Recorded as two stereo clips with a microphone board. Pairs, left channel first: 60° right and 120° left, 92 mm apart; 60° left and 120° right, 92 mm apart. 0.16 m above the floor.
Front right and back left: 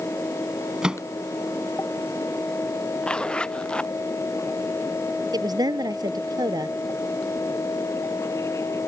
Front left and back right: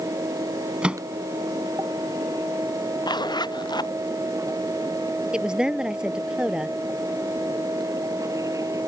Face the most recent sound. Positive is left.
turn(degrees=160)